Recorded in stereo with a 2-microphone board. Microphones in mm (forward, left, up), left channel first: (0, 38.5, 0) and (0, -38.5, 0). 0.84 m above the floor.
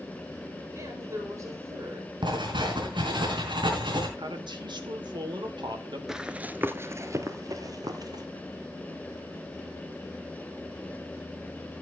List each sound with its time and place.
0.8 s a woman speaking: 40° right (ahead or behind), 4 m
2.2 s writing: 85° right, 4 m
4.2 s a man speaking: 75° right (ahead or behind), 2.5 m
6.1 s running footsteps: 5° right (ahead or behind), 0.8 m; by 8.2 s 55° right (ahead or behind), 1.6 m